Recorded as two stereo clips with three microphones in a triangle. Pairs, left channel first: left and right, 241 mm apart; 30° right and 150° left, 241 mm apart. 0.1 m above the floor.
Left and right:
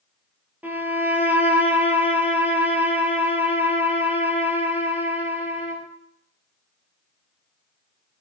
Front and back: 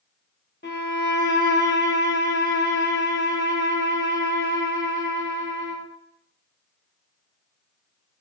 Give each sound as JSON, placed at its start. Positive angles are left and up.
{"t": 0.6, "sound": "a violin", "azimuth_deg": -10, "distance_m": 0.7}